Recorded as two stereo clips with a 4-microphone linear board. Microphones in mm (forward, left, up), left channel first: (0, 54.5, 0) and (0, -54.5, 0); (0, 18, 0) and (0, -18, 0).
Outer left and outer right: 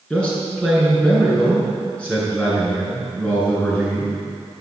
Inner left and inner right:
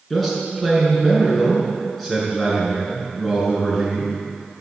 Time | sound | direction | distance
0.1 | a man speaking | 10° left (ahead or behind) | 6.5 m